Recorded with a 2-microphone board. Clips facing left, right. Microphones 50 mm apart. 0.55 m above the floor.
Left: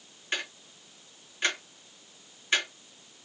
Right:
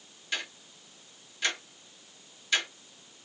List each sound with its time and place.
0.3 s ticking: 35° left (ahead or behind), 1.2 m